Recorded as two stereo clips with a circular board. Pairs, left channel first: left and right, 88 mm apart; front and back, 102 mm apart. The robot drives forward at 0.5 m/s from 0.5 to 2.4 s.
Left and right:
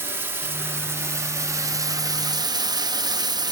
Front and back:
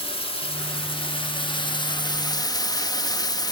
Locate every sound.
0.0 s running water: 25° right, 1.8 m; by 3.5 s 50° right, 1.1 m